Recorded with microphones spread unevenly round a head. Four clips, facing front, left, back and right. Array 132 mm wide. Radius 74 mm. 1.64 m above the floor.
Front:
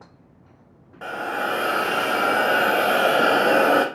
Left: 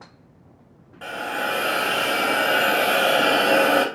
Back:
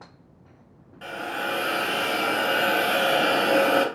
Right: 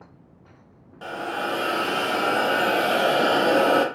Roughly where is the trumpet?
No trumpet in this recording.